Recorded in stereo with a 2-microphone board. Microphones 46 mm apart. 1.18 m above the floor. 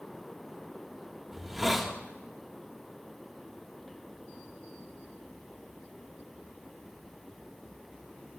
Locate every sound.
1.3 s a hiss: 5° right (ahead or behind), 1.3 m